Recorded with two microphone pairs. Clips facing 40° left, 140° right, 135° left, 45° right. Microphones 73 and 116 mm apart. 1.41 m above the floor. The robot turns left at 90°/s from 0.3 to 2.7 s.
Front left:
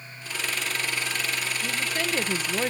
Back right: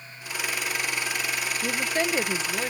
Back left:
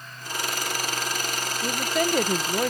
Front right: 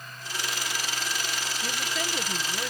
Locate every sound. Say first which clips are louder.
1.6 s a woman speaking: back right 5 dB, back left 10 dB; 160° right; by 2.7 s 100° left